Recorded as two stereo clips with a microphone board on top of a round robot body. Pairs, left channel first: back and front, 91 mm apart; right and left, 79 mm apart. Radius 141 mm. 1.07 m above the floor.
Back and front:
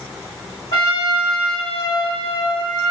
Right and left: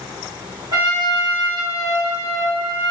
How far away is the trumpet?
About 1.2 m.